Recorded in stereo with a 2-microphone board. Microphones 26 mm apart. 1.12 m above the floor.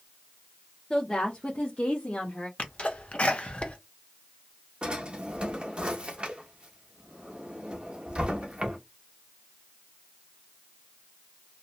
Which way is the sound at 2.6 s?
45° left (ahead or behind).